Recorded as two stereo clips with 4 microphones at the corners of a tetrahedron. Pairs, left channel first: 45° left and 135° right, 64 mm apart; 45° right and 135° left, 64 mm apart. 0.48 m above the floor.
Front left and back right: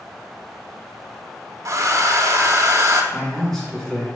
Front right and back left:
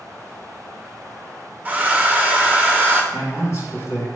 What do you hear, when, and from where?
1.6 s a hair dryer: 165° right, 0.5 m
3.1 s a man speaking: 25° right, 1.7 m